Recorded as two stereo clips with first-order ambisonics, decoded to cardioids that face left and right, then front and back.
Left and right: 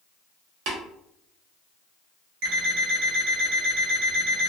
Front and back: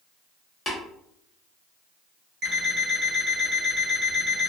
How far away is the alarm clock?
About 0.9 m.